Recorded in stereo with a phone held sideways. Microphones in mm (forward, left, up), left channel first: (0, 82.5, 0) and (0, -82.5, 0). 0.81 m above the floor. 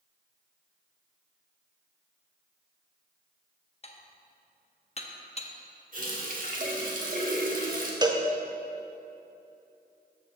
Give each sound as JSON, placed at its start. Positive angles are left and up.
{"t": 3.8, "sound": "dishes clattering", "side_deg": 40, "distance_m": 0.5}
{"t": 5.9, "sound": "a running tap", "side_deg": -55, "distance_m": 1.1}
{"t": 8.0, "sound": "a cowbell", "side_deg": -25, "distance_m": 0.6}